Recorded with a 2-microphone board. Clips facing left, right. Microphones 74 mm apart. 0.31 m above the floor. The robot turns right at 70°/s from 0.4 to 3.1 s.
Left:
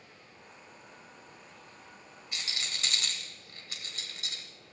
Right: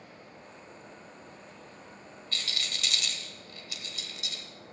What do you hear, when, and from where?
2.3 s a rattle: 15° left (ahead or behind), 1.3 m; by 4.4 s 40° left (ahead or behind), 1.3 m